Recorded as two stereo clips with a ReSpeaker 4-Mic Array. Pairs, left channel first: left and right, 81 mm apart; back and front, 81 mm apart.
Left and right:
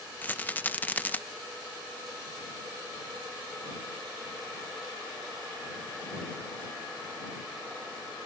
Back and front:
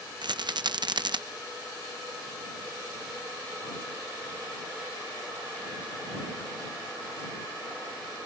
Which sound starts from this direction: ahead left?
A rattle, at 0.2 s.